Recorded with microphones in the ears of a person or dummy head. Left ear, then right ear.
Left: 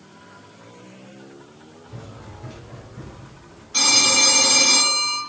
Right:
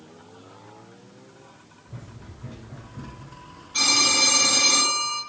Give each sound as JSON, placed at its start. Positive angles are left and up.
{"t": 1.9, "sound": "running footsteps", "side_deg": 65, "distance_m": 3.0}
{"t": 3.7, "sound": "a phone ringing", "side_deg": 30, "distance_m": 4.0}